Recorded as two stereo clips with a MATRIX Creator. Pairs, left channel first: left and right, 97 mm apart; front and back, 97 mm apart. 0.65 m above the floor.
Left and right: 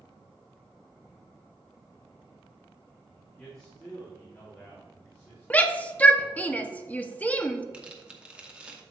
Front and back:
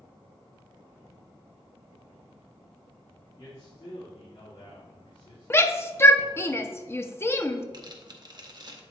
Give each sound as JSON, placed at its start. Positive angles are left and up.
{"t": 3.4, "sound": "a man speaking", "azimuth_deg": 10, "distance_m": 1.8}
{"t": 5.5, "sound": "a shout", "azimuth_deg": 30, "distance_m": 0.6}
{"t": 7.7, "sound": "tearing paper", "azimuth_deg": -165, "distance_m": 0.9}